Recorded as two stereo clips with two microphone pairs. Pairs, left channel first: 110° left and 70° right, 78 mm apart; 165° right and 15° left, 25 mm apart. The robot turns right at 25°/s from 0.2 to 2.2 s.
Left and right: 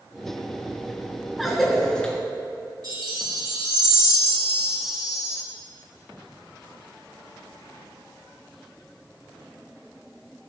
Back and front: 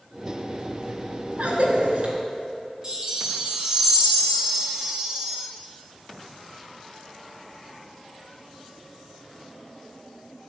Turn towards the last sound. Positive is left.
turn(degrees=-45)